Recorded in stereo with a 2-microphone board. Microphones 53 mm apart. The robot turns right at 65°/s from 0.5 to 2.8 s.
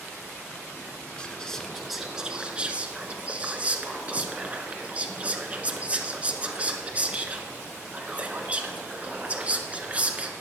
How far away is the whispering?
About 1.3 m.